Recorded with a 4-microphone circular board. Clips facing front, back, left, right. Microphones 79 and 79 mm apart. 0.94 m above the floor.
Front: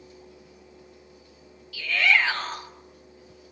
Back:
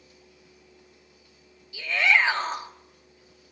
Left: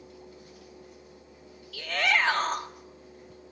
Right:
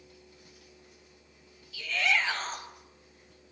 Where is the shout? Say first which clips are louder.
Even, left 3 dB; 115° left, 2.5 m.